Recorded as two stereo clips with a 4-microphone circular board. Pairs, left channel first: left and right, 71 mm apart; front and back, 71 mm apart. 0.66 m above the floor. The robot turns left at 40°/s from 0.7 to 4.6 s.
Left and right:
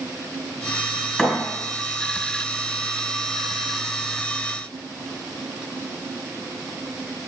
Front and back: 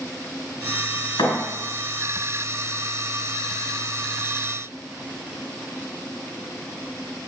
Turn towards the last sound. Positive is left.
turn(degrees=-130)